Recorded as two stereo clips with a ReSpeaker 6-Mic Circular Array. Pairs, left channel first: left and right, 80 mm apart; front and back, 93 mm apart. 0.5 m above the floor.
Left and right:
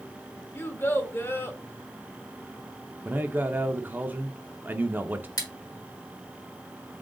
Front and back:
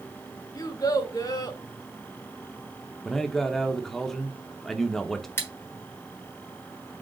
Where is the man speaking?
80° right, 0.7 m.